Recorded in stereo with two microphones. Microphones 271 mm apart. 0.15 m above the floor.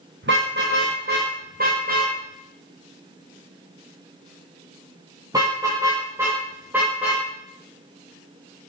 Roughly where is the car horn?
Right.